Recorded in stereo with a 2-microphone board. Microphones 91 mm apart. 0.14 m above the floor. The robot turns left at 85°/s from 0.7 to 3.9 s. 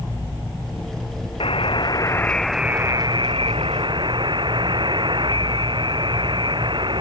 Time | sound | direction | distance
1.4 | a buzzer | 95° left | ?